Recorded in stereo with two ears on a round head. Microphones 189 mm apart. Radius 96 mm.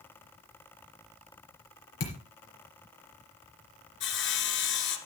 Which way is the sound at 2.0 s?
60° left (ahead or behind).